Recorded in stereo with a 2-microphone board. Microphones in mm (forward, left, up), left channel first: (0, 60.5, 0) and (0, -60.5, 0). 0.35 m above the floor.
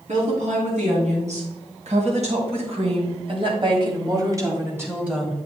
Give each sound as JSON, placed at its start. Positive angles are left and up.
{"t": 0.1, "sound": "a woman speaking", "side_deg": -75, "distance_m": 3.5}